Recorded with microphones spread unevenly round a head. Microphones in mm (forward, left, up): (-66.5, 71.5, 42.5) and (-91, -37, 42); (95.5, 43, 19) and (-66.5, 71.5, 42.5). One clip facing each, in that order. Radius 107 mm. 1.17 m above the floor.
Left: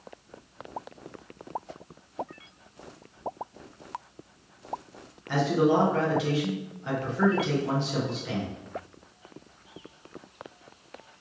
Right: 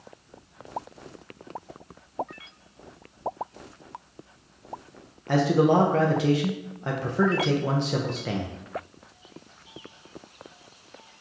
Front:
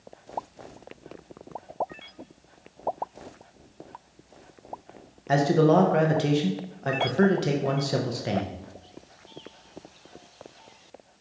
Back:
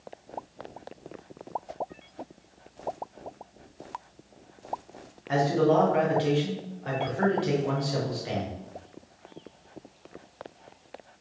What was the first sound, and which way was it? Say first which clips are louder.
A man speaking: right 3 dB, front 3 dB; 55° right.